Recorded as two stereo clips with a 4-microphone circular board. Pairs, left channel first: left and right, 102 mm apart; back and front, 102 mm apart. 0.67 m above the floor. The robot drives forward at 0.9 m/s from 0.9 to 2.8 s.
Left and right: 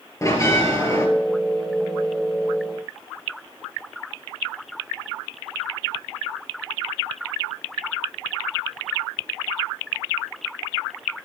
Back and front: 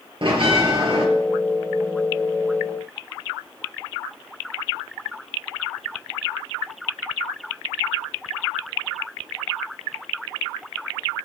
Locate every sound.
0.2 s a bell: 30° left, 3 m; by 1.1 s 35° left, 3 m